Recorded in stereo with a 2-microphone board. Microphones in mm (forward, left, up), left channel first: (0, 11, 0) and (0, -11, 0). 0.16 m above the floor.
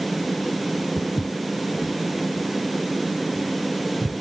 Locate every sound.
1.0 s footsteps: 85° left, 0.7 m; by 4.1 s 75° left (ahead or behind), 2.5 m